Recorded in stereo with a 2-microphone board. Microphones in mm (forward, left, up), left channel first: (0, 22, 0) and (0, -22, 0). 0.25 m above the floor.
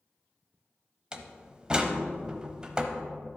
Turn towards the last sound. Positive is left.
turn(degrees=-20)  # may be behind; listen again after turning